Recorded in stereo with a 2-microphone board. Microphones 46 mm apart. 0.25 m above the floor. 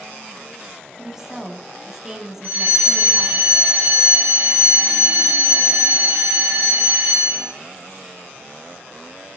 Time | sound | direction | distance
1.0 | a woman speaking | 10° right (ahead or behind) | 2.5 m
2.4 | a fire alarm | 45° right (ahead or behind) | 5 m